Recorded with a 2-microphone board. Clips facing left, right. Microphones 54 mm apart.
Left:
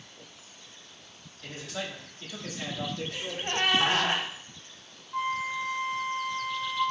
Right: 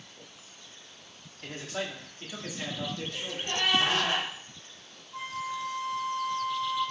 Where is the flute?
35° left (ahead or behind), 0.6 m.